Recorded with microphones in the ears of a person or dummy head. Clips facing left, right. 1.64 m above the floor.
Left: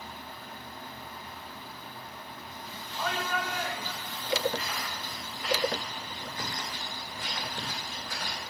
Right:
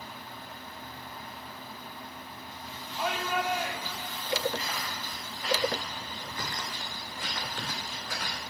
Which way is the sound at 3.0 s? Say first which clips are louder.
Right 2 dB; 10° right (ahead or behind).